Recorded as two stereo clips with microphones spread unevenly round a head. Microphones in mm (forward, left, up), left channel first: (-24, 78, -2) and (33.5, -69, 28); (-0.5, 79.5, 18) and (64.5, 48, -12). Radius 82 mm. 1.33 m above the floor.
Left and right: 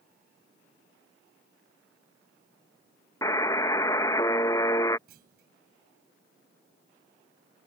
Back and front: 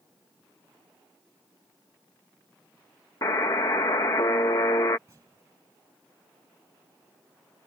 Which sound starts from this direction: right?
A clunk, at 5.1 s.